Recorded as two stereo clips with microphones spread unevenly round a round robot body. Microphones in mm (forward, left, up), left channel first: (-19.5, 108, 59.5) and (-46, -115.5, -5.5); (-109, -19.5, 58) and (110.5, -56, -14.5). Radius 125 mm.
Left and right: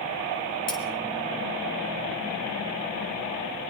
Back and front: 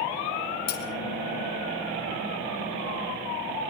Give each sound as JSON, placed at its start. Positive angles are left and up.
{"t": 0.7, "sound": "cutlery clinking", "azimuth_deg": 140, "distance_m": 5.0}